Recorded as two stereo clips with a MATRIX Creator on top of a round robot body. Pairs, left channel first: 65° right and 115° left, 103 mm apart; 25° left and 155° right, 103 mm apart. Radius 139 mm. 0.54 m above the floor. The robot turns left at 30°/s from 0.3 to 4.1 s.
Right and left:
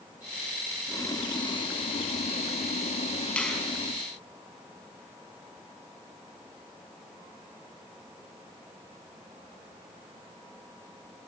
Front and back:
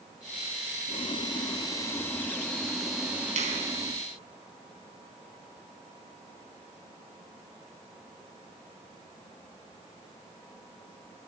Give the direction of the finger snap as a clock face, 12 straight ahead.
5 o'clock.